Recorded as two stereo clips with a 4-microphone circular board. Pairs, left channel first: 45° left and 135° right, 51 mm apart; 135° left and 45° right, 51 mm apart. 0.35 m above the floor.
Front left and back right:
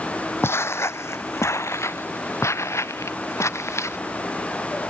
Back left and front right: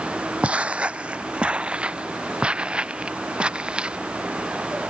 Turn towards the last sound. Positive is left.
turn(degrees=25)